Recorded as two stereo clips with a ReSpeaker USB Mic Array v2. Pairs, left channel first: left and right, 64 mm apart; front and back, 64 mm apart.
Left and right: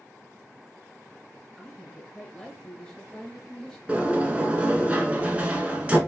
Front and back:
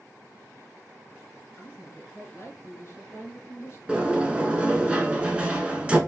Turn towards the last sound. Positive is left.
turn(degrees=-130)